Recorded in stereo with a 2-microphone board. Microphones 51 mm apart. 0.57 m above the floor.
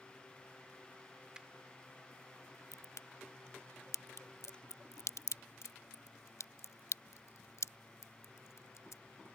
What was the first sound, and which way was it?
A finger snap, 15° right (ahead or behind).